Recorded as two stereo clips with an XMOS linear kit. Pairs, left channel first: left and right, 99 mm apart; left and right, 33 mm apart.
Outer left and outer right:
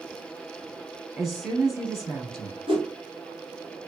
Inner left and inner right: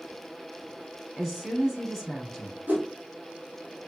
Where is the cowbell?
No cowbell in this recording.